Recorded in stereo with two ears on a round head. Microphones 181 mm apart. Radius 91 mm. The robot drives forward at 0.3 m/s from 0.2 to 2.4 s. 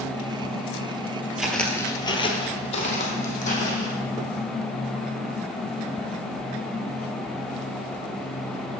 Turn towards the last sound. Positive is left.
turn(degrees=40)  # may be behind; listen again after turning